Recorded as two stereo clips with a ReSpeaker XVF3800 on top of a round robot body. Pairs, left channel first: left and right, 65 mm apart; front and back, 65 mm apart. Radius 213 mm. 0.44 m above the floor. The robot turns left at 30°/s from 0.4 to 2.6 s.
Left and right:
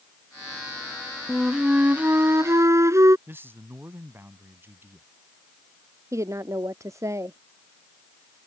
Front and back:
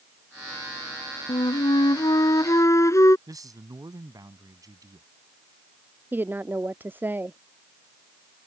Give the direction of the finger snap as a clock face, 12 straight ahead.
I don't hear a finger snap.